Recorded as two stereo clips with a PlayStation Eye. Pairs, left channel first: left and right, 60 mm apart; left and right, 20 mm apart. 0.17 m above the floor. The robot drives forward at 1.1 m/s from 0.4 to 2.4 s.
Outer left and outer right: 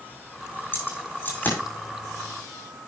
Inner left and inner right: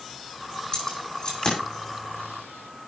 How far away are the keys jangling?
About 5.5 m.